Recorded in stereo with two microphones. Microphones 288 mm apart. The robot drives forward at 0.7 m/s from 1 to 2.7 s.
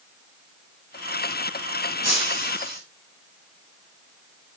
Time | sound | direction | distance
2.0 | breaking glass | 60° right (ahead or behind) | 4 m